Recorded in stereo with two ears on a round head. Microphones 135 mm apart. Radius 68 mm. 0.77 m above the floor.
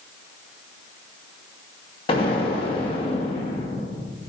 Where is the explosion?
35° left (ahead or behind), 1.1 m.